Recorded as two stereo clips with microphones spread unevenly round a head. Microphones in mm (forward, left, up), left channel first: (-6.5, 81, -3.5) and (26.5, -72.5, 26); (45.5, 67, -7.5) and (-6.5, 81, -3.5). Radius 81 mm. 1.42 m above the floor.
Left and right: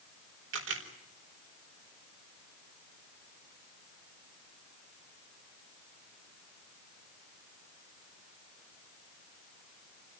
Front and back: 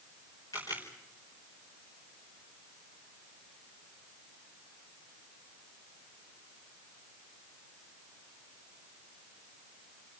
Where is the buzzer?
No buzzer in this recording.